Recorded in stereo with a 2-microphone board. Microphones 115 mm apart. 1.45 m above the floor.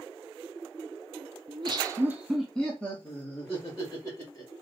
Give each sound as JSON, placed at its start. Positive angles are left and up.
{"t": 1.5, "sound": "laughter", "side_deg": -55, "distance_m": 0.5}